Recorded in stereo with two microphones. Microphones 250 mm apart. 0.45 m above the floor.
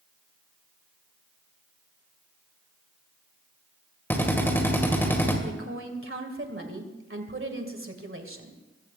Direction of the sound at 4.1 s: 10° left (ahead or behind).